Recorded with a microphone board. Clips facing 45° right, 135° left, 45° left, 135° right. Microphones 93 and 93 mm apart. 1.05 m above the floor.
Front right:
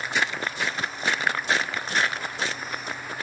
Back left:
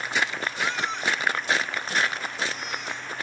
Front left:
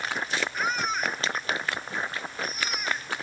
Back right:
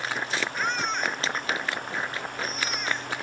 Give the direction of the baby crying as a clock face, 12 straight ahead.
8 o'clock.